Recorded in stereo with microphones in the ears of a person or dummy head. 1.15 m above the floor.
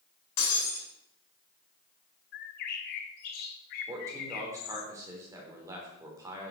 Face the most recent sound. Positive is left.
turn(degrees=-15)  # may be behind; listen again after turning